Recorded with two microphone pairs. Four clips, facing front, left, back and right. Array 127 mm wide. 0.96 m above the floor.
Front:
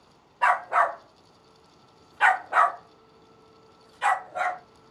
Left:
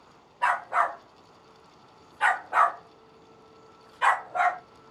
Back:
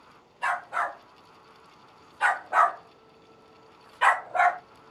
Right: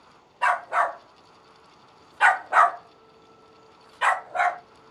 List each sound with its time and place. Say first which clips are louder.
0.4 s a dog barking: right 2 dB, front 7 dB; 25° right, 1.3 m; by 4.6 s 155° right, 1.3 m